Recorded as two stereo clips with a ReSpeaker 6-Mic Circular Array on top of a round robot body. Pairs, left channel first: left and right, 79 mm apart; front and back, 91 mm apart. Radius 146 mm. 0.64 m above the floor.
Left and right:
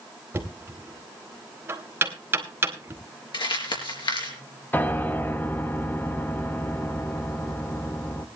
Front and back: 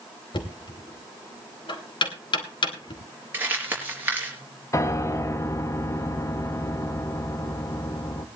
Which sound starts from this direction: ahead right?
Knocking, at 0.3 s.